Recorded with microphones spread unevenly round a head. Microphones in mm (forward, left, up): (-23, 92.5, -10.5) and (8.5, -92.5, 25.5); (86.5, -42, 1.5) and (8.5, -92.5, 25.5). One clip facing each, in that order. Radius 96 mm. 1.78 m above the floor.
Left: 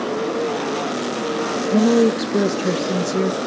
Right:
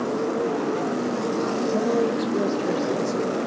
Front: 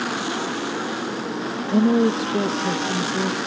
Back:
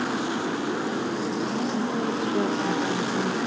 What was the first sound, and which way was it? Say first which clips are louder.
A woman speaking: left 9 dB, front 8 dB; 50° left.